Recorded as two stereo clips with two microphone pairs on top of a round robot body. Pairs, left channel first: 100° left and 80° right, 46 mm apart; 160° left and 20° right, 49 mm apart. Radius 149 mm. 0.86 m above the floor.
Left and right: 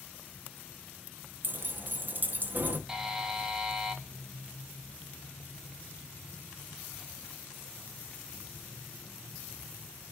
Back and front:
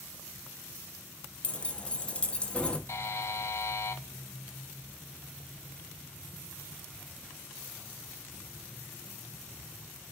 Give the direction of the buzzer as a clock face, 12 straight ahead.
5 o'clock.